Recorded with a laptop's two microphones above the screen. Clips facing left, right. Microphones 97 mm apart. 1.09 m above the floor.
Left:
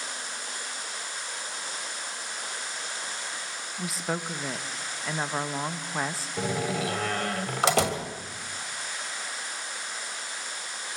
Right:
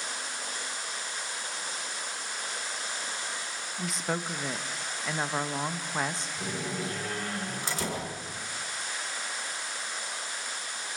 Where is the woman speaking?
Centre (ahead or behind), 0.9 m.